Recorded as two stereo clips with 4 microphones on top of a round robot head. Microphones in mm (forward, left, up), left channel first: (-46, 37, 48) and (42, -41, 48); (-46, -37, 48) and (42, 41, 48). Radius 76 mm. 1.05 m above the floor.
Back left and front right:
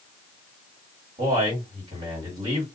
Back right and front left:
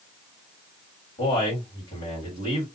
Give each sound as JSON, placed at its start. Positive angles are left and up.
{"t": 1.2, "sound": "a man speaking", "azimuth_deg": -85, "distance_m": 1.9}